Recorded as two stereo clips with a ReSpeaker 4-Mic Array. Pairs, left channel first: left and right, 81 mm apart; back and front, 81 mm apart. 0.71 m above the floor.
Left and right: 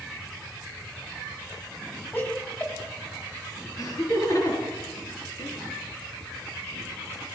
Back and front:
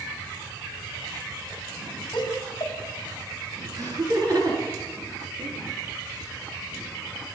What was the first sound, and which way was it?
Laughter, 155° left.